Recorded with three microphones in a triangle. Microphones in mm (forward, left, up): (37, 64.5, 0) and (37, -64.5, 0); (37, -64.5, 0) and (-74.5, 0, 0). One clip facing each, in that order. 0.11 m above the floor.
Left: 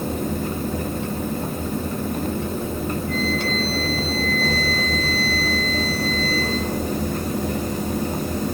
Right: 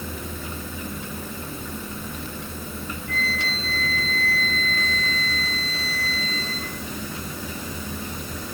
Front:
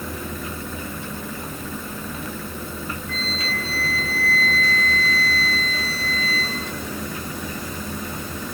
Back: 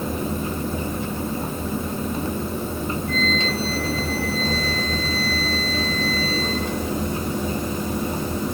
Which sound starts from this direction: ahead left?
A flute, at 3.1 s.